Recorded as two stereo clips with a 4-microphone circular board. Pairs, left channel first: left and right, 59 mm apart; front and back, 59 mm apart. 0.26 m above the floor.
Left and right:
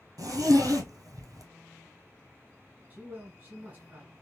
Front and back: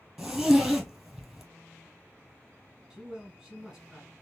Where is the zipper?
95° right, 1.2 m.